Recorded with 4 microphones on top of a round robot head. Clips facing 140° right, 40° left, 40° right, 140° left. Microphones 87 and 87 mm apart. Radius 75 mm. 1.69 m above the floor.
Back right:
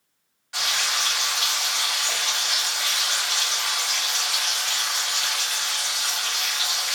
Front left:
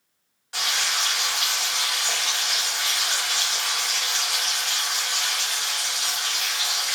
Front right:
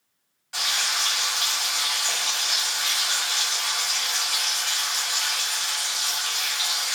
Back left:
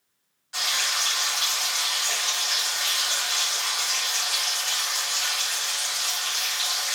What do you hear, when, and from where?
0.5 s frying: 10° right, 1.3 m